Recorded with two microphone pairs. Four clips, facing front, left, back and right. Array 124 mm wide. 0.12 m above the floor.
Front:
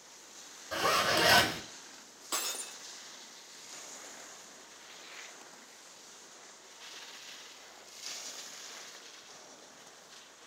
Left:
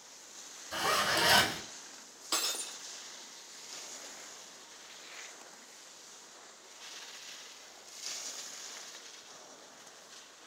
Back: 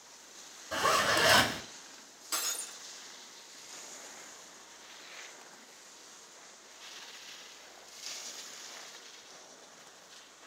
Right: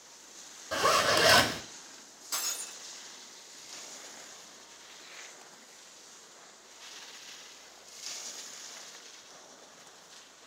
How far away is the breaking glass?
About 0.7 m.